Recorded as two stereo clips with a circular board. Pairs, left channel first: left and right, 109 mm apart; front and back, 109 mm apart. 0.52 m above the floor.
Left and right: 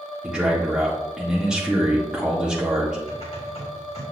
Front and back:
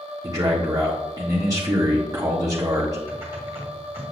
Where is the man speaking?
170° right, 1.2 m.